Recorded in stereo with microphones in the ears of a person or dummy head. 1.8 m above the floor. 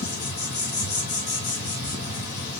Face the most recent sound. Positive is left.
turn(degrees=55)  # may be behind; listen again after turning